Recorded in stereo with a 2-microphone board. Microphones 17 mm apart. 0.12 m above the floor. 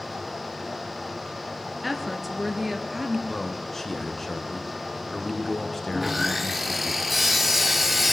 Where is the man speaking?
20° left (ahead or behind), 1.5 m.